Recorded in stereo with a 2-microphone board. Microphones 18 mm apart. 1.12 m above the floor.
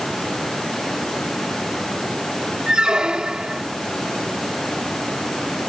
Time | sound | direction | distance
2.7 | a squeak | 60° right (ahead or behind) | ?